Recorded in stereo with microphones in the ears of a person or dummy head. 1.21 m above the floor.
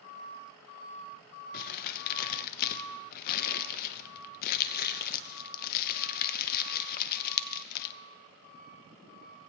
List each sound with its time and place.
1.5 s crumpling: 50° left (ahead or behind), 0.6 m